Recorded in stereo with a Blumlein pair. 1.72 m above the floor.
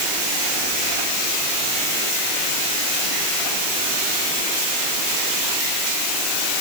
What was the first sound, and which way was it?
Only background noise.